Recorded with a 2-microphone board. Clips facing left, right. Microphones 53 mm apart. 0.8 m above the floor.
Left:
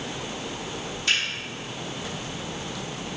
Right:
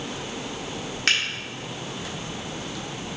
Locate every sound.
1.1 s a finger snap: 75° right (ahead or behind), 0.9 m